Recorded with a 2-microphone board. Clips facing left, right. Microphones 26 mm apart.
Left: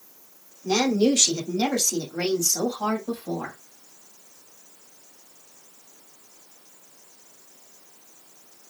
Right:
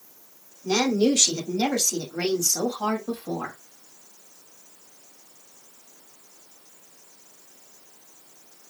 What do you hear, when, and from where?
0.6 s a woman speaking: 5° left (ahead or behind), 1.6 m; by 3.5 s 40° right (ahead or behind), 1.6 m